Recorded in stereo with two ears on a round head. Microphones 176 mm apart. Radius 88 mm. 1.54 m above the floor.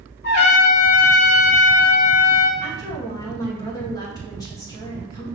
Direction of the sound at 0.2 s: 55° left (ahead or behind).